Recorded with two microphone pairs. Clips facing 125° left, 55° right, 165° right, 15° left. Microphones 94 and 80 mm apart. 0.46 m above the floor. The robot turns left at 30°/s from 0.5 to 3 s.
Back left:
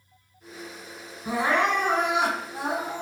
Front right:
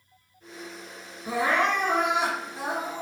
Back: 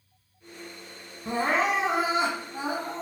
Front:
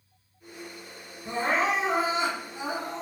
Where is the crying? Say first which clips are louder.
Back left 1 dB, back 1 dB; 170° right, 1.1 m; by 3.0 s 140° left, 1.1 m.